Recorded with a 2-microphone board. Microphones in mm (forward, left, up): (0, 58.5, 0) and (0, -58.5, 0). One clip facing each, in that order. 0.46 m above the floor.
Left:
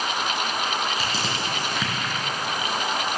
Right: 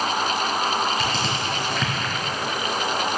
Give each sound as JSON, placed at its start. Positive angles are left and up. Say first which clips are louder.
{"t": 1.0, "sound": "crushing", "louder": "right 3 dB", "side_deg": 5, "distance_m": 4.0}